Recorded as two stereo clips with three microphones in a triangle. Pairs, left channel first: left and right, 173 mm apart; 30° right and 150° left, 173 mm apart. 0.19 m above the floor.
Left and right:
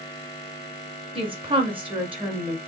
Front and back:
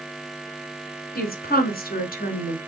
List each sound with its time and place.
1.1 s a woman speaking: 35° right, 1.9 m